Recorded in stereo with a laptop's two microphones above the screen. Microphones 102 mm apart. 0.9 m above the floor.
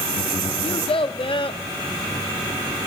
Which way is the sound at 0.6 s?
60° left (ahead or behind).